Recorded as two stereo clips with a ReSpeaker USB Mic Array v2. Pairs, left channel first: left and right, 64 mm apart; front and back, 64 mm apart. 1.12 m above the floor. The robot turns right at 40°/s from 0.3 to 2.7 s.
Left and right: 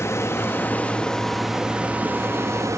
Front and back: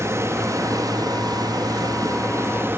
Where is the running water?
135° left, 1.3 m; by 2.8 s 125° right, 1.3 m.